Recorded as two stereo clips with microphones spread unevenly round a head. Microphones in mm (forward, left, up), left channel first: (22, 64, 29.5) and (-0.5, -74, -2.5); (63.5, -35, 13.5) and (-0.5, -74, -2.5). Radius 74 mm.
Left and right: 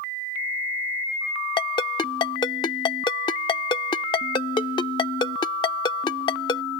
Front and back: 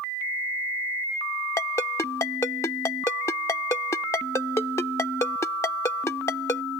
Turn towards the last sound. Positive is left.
turn(degrees=50)